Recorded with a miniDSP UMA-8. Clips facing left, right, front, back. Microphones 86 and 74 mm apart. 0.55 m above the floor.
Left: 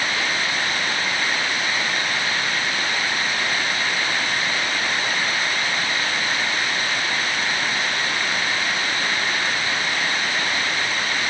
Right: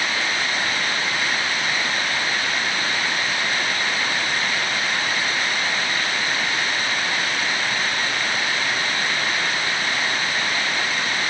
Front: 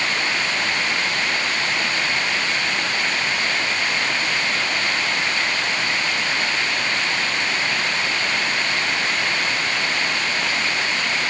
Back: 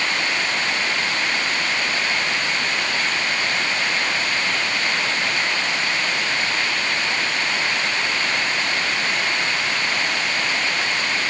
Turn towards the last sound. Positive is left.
No sound to turn to.